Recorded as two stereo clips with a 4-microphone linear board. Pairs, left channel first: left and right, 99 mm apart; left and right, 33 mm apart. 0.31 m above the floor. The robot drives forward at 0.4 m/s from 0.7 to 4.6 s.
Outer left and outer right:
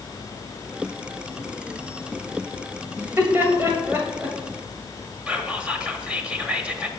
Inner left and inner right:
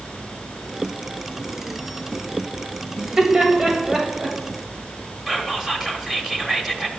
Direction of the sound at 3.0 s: 25° right (ahead or behind).